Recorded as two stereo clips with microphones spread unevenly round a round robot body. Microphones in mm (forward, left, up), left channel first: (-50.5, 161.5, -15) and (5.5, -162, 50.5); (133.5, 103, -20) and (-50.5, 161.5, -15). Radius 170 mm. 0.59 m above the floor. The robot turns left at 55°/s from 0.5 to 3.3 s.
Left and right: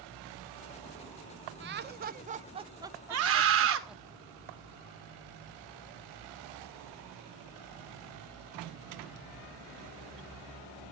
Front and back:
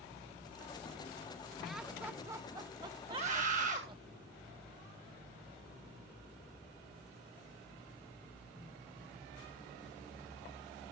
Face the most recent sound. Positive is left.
turn(degrees=-135)